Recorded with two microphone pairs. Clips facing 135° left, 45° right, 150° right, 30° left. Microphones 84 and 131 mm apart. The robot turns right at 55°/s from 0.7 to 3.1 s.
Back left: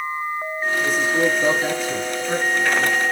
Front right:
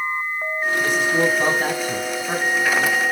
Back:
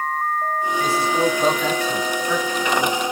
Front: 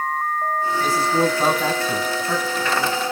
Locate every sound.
0.8 s a man speaking: 65° right, 5.5 m; by 2.7 s 40° left, 5.5 m